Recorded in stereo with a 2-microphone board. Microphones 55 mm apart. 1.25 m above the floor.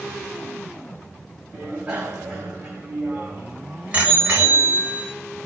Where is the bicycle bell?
15° right (ahead or behind), 5.5 m; by 5.1 s 30° right (ahead or behind), 4 m.